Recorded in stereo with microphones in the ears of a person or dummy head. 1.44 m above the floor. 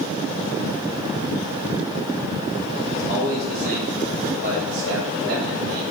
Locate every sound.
2.9 s a man speaking: 35° right (ahead or behind), 3.5 m; by 5.8 s 65° right (ahead or behind), 3.5 m